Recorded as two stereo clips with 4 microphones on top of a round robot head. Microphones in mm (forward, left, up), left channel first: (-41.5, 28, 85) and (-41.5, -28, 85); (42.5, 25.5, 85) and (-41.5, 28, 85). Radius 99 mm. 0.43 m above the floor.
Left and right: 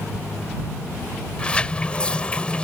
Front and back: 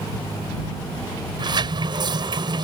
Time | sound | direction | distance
1.4 | a sliding door | 160° left | ?